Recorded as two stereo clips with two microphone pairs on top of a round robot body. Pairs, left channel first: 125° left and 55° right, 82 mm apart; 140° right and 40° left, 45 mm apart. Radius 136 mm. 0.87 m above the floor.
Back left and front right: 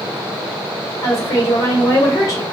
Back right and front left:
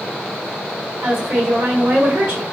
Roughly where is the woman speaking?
Left.